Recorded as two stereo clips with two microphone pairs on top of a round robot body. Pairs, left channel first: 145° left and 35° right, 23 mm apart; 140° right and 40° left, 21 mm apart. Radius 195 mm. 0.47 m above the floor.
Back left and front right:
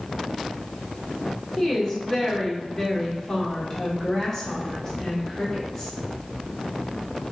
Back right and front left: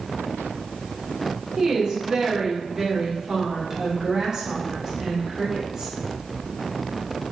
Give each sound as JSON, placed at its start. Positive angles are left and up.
{"t": 1.6, "sound": "a woman speaking", "azimuth_deg": 85, "distance_m": 1.5}